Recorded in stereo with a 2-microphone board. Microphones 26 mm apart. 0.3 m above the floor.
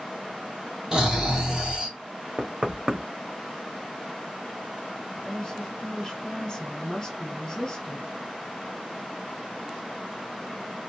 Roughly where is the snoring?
Right.